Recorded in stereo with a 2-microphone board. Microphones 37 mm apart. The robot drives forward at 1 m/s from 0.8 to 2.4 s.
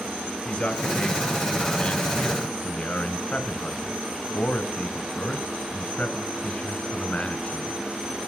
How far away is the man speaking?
About 3.5 m.